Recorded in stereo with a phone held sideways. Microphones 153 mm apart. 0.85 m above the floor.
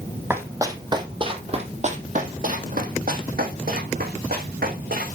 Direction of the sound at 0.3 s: 15° right (ahead or behind).